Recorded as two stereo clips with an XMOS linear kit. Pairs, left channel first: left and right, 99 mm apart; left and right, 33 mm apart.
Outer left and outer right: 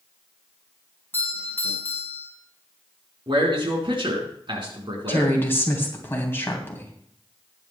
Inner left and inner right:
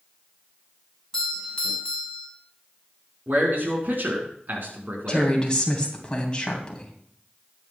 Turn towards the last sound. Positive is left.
turn(degrees=25)  # may be behind; listen again after turning